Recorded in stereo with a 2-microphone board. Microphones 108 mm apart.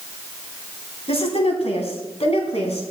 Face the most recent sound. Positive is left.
turn(degrees=75)  # may be behind; listen again after turning